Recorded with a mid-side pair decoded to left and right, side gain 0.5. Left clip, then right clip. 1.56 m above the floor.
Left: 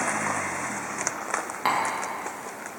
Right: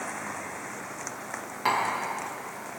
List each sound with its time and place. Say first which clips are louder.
1.6 s tapping: left 1 dB; 25° left, 2 m